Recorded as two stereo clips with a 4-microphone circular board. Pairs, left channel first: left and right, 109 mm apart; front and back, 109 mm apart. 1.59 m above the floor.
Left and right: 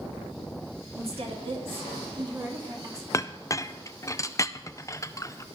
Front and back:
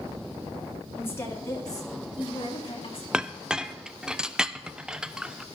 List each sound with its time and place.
0.9 s a woman speaking: 70° right, 3.5 m; by 3.0 s 30° right, 3.5 m
3.1 s a clink: 105° left, 0.5 m